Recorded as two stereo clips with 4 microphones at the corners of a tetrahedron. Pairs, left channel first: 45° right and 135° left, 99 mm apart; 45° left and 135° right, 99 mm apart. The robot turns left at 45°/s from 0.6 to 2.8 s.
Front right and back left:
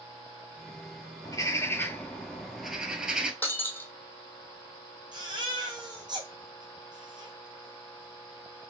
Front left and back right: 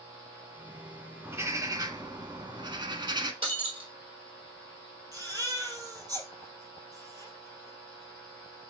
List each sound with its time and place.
1.2 s a bird: 75° right, 0.8 m; by 3.3 s 145° right, 0.8 m
3.4 s breaking glass: 115° right, 1.8 m
5.1 s a baby crying: 175° left, 2.5 m